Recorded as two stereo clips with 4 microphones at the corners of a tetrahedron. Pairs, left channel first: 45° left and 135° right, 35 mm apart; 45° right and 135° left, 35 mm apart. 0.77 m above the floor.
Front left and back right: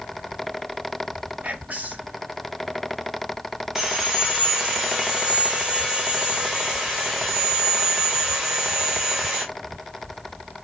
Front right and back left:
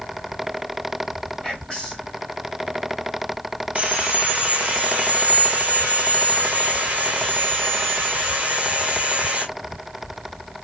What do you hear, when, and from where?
1.4 s whispering: 115° right, 0.6 m
3.8 s sawing: 155° left, 1.0 m